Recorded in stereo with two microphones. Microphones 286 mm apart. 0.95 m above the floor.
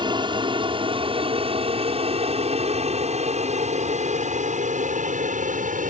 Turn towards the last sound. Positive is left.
turn(degrees=-25)  # may be behind; listen again after turning